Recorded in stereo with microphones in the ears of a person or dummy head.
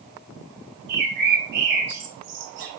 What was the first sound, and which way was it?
A bird, 50° right (ahead or behind).